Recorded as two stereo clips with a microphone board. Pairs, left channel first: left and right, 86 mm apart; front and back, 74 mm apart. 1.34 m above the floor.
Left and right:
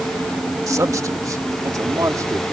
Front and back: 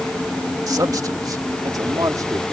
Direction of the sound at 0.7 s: 140° right.